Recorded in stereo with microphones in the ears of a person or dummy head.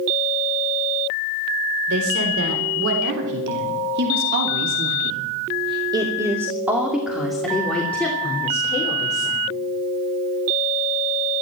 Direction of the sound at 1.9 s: 85° right.